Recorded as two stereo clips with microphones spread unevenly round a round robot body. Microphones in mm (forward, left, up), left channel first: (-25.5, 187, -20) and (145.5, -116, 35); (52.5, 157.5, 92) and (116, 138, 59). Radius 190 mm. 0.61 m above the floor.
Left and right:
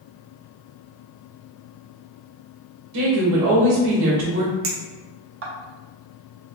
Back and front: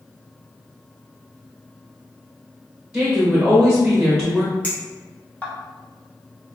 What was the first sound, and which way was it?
A woman speaking, 30° right.